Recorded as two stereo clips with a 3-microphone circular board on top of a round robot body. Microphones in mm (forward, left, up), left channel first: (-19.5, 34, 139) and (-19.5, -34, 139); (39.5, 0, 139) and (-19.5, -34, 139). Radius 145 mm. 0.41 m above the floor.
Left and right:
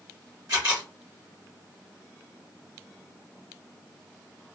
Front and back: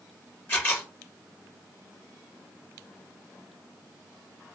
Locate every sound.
0.5 s a camera shutter: 30° right, 2.5 m